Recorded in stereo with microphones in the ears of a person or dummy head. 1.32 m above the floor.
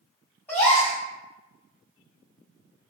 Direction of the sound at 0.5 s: 10° left (ahead or behind).